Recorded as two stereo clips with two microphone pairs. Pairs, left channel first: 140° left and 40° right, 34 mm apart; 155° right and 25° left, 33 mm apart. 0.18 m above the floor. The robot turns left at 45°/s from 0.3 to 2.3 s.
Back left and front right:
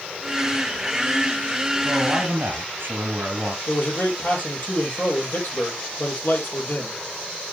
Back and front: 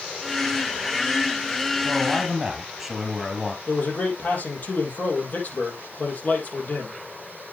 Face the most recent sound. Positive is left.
turn(degrees=170)